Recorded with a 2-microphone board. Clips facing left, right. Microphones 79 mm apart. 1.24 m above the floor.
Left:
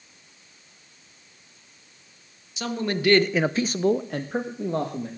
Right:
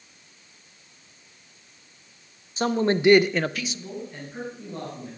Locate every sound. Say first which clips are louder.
2.6 s a man speaking: right 5 dB; 40° right (ahead or behind), 1.2 m; by 5.1 s 75° left (ahead or behind), 1.7 m